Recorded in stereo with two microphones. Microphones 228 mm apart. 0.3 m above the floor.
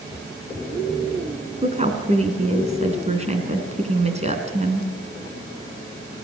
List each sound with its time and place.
1.6 s a woman speaking: 30° right (ahead or behind), 3.5 m